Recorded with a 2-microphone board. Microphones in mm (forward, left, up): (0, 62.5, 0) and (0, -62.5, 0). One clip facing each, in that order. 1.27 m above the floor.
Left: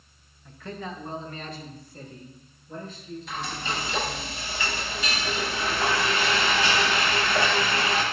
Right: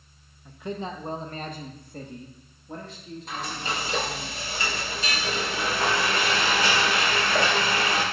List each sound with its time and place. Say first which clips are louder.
0.5 s a man speaking: right 4 dB; 10° right (ahead or behind), 1.0 m; by 4.3 s 80° right, 3 m
3.3 s frying: right 1 dB; 45° right (ahead or behind), 4.5 m